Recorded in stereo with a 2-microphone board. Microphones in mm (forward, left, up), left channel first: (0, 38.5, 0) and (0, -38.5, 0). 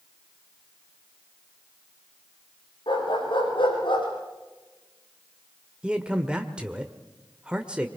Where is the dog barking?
85° left, 9 m; by 4.1 s 80° left, 7 m.